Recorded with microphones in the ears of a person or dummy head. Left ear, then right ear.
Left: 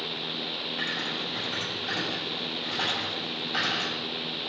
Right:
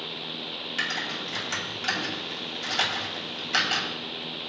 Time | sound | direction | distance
0.8 | typing on a keyboard | 85° right | 7 m